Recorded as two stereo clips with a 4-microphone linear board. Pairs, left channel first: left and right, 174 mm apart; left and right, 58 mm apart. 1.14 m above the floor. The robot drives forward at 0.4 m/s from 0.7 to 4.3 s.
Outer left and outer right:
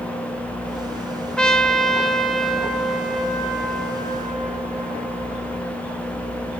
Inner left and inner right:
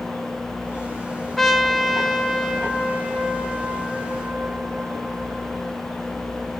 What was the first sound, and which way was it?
A trumpet, 5° left (ahead or behind).